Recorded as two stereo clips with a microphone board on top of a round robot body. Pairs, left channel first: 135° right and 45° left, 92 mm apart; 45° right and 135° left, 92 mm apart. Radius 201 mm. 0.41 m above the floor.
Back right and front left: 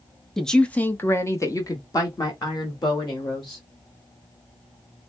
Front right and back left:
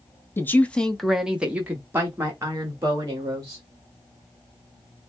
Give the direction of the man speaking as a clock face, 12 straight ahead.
2 o'clock.